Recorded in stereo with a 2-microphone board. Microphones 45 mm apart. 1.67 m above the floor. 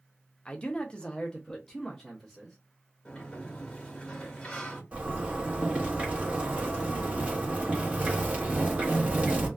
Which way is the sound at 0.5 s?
25° left (ahead or behind).